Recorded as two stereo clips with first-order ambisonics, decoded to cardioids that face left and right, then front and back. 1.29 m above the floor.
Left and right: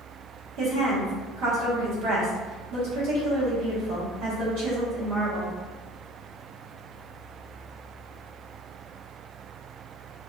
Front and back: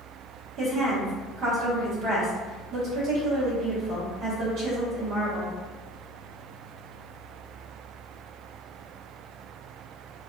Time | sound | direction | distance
0.6 | a woman speaking | 130° right | 1.3 m